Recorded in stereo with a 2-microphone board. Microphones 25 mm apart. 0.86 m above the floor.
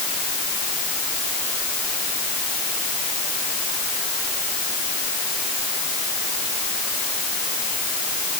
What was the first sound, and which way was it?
Only background noise.